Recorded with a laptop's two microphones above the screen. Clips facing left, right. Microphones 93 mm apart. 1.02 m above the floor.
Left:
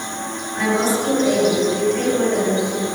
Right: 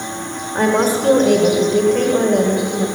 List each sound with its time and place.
0.6 s a woman speaking: 50° right (ahead or behind), 5 m; by 2.9 s 70° right (ahead or behind), 6 m